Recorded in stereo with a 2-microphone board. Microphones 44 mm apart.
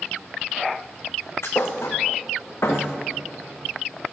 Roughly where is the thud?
Left.